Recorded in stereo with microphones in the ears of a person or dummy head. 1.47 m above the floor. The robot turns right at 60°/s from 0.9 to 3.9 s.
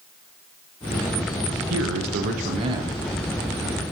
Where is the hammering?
I don't hear hammering.